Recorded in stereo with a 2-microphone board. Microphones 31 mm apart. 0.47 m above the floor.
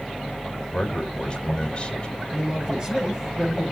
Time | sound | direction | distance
0.7 | a man speaking | 30° left (ahead or behind) | 1.9 m
2.3 | a man speaking | 25° right (ahead or behind) | 6.5 m